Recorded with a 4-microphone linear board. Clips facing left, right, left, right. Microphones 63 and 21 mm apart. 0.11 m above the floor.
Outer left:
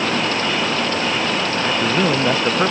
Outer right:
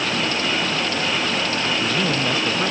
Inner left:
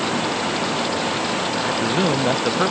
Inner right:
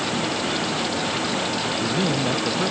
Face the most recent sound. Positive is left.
turn(degrees=30)  # may be behind; listen again after turning